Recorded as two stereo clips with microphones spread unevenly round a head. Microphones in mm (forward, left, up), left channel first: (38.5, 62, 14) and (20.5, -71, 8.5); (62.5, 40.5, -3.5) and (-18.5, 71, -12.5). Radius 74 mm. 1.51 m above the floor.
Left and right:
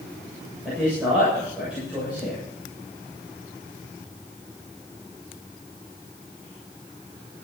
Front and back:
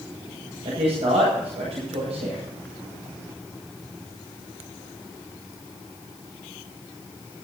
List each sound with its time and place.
0.7 s a man speaking: 175° left, 7.5 m